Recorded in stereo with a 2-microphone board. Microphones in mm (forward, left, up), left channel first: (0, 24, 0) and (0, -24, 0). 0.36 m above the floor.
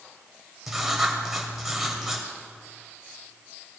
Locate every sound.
0.7 s writing: 10° right (ahead or behind), 2 m